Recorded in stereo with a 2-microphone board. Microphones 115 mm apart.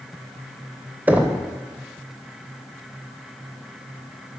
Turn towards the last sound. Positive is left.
turn(degrees=-15)  # may be behind; listen again after turning